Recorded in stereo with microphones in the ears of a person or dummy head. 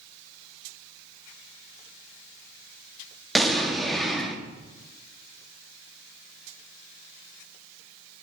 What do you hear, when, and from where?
3.4 s an explosion: centre (ahead or behind), 0.8 m